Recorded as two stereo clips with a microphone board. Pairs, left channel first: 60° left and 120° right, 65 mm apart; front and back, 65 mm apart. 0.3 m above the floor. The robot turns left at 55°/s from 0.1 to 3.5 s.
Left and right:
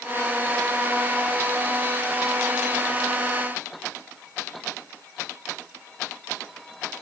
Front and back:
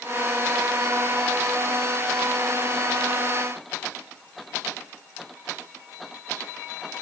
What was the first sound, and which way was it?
Only background noise.